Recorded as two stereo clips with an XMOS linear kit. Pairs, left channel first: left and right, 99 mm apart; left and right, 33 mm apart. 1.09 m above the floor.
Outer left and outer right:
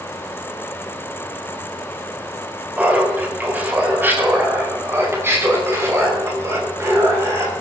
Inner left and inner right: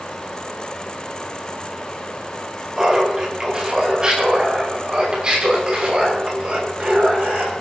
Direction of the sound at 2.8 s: 15° right (ahead or behind).